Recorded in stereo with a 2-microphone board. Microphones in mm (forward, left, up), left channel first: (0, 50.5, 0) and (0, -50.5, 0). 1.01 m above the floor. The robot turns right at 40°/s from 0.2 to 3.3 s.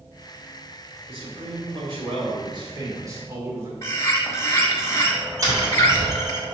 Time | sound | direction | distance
1.1 | a man speaking | 115° right | 2.5 m
3.8 | a bird | 30° left (ahead or behind) | 1.6 m
5.4 | tapping | 35° right (ahead or behind) | 2.0 m